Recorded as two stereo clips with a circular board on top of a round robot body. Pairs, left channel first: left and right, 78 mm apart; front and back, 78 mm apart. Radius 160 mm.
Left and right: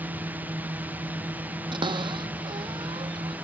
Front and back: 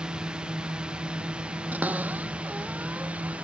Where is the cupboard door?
105° right.